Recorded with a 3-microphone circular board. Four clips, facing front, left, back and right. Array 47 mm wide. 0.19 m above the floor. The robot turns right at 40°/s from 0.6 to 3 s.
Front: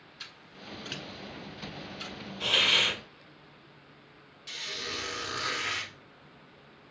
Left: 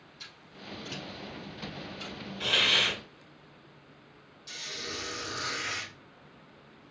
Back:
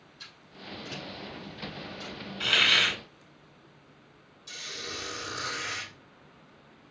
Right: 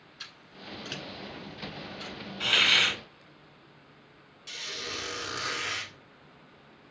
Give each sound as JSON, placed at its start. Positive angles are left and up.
{"t": 0.2, "sound": "scissors", "azimuth_deg": -60, "distance_m": 1.1}
{"t": 2.4, "sound": "a hiss", "azimuth_deg": -150, "distance_m": 1.5}
{"t": 4.5, "sound": "a squeak", "azimuth_deg": -45, "distance_m": 1.5}